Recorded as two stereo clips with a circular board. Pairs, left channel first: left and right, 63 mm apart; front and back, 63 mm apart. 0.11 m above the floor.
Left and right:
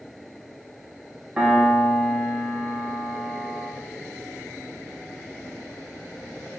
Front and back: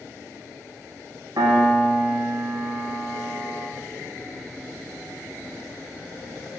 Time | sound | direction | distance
1.4 | a piano | 165° right | 3.5 m